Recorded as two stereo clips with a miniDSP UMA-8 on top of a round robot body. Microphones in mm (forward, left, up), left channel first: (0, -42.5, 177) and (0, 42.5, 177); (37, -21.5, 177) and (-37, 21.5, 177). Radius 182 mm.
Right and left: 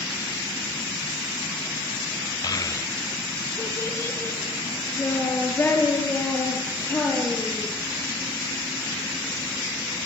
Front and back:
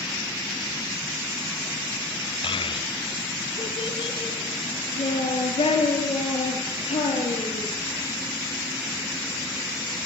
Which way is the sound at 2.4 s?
45° right.